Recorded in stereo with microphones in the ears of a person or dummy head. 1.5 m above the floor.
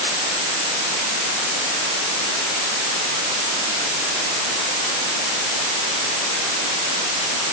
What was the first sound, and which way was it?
Only background noise.